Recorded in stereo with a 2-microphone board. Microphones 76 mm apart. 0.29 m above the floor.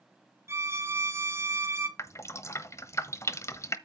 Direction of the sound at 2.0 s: 40° left (ahead or behind).